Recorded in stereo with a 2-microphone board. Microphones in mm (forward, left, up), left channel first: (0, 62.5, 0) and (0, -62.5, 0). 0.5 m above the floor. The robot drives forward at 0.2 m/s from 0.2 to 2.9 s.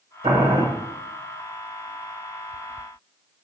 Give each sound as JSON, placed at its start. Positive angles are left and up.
{"t": 0.2, "sound": "boiling", "side_deg": -55, "distance_m": 1.2}